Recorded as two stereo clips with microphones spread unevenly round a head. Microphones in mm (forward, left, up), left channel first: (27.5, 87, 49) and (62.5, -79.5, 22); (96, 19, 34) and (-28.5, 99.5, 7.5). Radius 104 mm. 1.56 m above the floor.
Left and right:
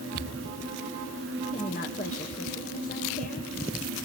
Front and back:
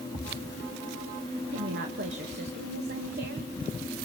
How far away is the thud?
About 4 m.